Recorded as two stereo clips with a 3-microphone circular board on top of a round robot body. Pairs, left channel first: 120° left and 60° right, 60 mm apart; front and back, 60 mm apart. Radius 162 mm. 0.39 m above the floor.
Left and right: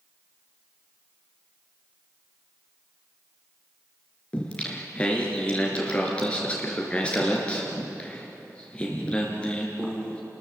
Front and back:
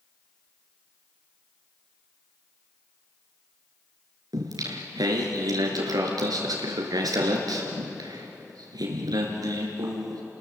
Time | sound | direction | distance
4.3 | singing | 165° right | 2.5 m